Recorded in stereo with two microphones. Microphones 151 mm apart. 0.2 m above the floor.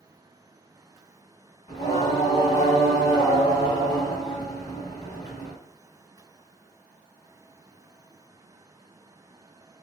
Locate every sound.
1.7 s singing: 30° left (ahead or behind), 1.1 m